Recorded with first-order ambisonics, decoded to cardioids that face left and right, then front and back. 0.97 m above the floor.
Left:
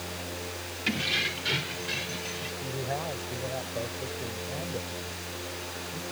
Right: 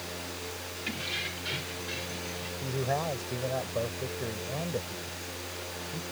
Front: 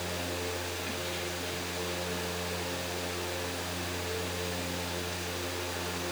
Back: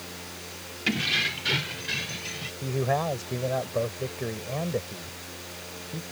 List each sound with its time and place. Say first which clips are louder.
0.9 s keys jangling: left 7 dB, back 10 dB; 155° left; by 2.5 s 160° left
2.6 s a man speaking: right 4 dB, back 8 dB; 165° right